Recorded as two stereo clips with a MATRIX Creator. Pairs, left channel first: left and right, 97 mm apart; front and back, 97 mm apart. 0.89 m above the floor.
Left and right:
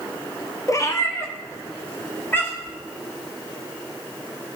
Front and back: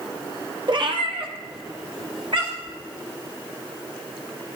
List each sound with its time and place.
0.7 s a cat meowing: 145° left, 0.7 m; by 2.8 s 155° left, 2 m